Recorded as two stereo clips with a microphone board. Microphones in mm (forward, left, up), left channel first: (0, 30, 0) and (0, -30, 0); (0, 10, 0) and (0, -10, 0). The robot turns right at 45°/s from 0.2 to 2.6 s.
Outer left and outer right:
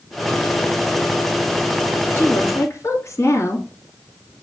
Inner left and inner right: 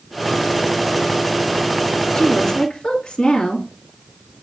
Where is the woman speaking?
35° left (ahead or behind), 2 m; by 3.7 s 45° left (ahead or behind), 2 m.